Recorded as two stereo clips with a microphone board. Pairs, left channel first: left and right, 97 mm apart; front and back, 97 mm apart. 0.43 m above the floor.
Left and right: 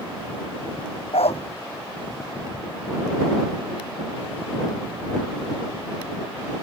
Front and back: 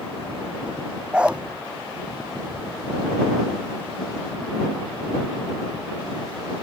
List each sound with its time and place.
1.1 s a dog barking: 100° left